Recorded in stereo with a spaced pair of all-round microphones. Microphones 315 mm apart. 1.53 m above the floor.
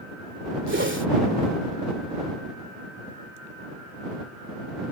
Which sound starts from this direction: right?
A whoosh, at 0.7 s.